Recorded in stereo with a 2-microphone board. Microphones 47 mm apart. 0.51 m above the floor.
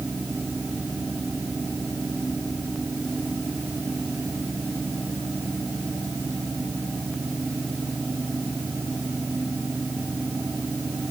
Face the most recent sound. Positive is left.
No sound to turn to.